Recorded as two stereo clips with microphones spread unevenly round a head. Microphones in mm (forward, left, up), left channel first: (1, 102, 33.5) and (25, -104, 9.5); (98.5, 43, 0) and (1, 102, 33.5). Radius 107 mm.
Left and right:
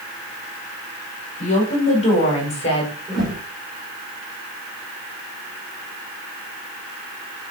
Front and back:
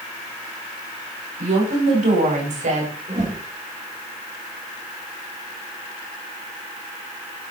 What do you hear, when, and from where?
1.4 s a woman speaking: 155° left, 6 m; by 2.9 s 160° left, 5.5 m
3.1 s a whoosh: 175° right, 4 m